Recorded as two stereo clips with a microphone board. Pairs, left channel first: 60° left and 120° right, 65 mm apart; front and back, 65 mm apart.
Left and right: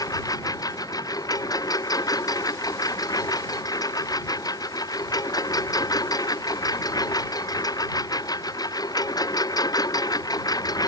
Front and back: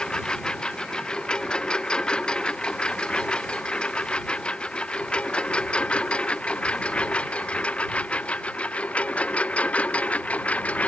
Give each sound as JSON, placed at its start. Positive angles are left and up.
{"t": 0.0, "sound": "a lawn mower", "azimuth_deg": 75}